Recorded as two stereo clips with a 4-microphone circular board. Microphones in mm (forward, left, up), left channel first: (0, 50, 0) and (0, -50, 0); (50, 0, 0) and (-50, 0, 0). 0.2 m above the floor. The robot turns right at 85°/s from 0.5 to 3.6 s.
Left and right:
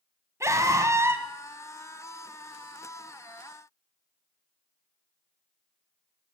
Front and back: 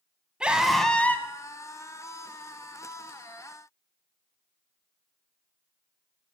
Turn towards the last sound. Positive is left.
turn(degrees=155)